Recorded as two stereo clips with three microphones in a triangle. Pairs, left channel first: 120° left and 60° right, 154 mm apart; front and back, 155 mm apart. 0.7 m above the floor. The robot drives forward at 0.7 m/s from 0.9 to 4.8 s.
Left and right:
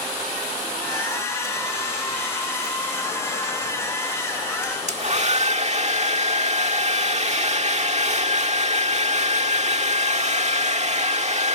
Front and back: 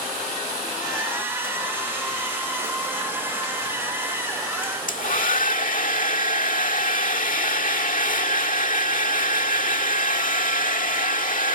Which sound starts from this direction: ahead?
A hair dryer, at 4.6 s.